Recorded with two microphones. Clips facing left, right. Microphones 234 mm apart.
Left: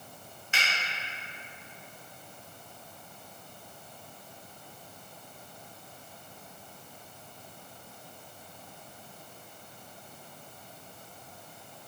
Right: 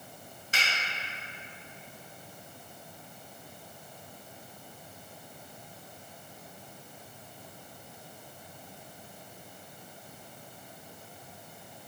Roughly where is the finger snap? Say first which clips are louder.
Even; right.